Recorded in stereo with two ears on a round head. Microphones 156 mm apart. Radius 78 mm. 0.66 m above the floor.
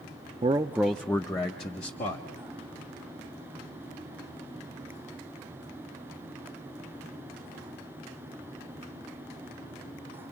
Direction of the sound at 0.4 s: 30° right (ahead or behind).